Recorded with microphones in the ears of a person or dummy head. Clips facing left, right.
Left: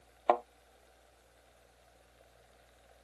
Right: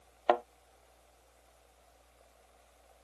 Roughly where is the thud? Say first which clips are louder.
Right 1 dB; centre.